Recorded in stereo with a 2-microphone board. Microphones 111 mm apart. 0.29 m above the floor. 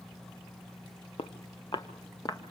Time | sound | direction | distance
1.2 | footsteps | 60° left (ahead or behind) | 1.4 m